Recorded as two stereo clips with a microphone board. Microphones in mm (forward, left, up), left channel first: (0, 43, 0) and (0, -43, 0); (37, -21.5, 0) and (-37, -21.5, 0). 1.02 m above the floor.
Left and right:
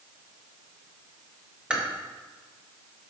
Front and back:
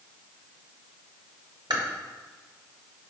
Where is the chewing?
170° right, 1.6 m.